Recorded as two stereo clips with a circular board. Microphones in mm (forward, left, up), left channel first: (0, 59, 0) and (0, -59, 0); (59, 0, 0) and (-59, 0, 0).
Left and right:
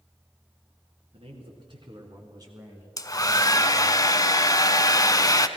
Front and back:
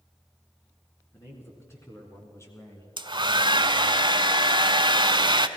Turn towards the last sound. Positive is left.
turn(degrees=145)